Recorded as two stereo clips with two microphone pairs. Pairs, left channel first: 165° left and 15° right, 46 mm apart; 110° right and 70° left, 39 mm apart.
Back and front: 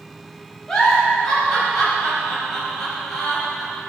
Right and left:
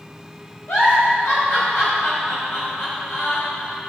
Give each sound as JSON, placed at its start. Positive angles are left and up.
{"t": 0.7, "sound": "a giggle", "azimuth_deg": -115, "distance_m": 4.0}